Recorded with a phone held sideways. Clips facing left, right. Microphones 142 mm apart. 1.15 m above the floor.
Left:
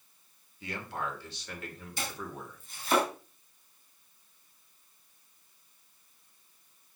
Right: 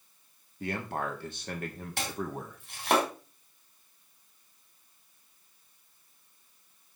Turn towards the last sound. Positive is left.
turn(degrees=-85)